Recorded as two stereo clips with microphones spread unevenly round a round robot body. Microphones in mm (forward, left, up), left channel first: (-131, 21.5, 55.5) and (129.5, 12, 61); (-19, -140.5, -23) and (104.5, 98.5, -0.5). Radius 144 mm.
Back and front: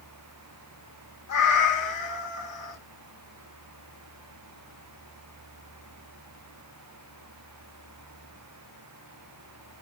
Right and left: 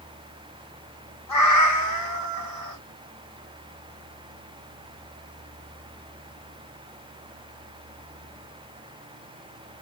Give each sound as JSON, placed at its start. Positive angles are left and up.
{"t": 1.3, "sound": "a cat meowing", "azimuth_deg": -140, "distance_m": 2.5}